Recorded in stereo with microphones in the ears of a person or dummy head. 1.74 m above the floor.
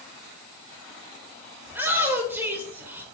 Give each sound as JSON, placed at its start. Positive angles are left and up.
{"t": 1.7, "sound": "a shout", "side_deg": -10, "distance_m": 0.8}